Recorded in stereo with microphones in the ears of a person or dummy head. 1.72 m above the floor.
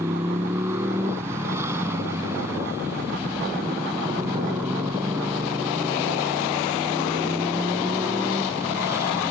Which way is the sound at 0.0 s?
10° right (ahead or behind).